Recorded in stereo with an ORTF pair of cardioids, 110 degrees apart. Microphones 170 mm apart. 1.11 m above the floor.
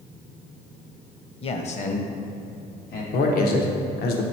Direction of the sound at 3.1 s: 70° left.